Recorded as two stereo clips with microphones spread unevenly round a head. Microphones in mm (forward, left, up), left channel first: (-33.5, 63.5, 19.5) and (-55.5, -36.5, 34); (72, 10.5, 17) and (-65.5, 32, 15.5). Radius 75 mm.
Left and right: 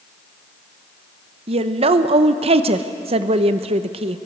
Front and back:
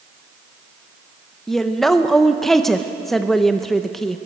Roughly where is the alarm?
No alarm in this recording.